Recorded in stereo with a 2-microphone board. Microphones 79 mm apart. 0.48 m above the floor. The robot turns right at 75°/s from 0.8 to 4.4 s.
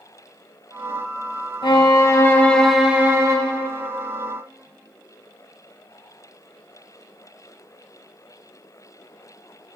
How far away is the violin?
About 1.1 m.